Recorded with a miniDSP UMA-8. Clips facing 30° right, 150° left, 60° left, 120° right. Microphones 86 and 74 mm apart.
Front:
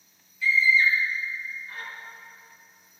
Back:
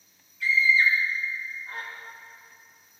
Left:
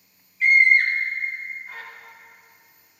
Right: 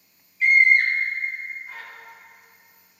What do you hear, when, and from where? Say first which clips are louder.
0.4 s a scream: even, even; 150° left, 3.5 m